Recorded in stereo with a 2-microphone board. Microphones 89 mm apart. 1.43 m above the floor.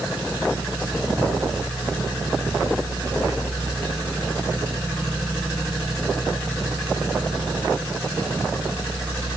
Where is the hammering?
I don't hear hammering.